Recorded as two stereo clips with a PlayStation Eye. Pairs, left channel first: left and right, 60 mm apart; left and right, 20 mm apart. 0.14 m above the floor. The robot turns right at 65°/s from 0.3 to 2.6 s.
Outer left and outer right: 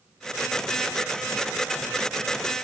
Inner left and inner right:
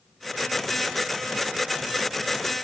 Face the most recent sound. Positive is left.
No sound to turn to.